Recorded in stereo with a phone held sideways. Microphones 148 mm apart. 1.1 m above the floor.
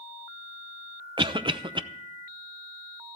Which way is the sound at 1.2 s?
35° right (ahead or behind).